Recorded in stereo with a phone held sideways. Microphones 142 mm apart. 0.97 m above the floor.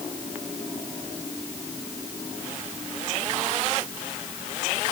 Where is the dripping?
No dripping in this recording.